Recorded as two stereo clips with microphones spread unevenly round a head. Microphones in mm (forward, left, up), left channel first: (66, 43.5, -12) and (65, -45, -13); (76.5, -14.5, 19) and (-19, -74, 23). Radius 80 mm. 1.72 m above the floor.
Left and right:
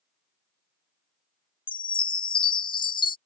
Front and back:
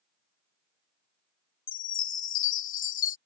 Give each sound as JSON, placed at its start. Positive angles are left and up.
{"t": 1.7, "sound": "a chime", "azimuth_deg": 60}